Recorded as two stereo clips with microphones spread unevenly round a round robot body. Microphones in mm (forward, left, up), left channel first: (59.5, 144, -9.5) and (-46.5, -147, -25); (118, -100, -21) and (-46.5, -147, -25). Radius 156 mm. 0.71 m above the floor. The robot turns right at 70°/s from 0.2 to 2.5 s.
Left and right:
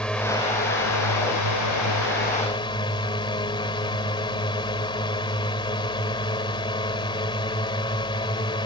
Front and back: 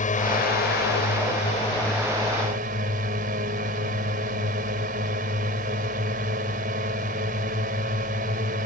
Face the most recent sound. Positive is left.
turn(degrees=145)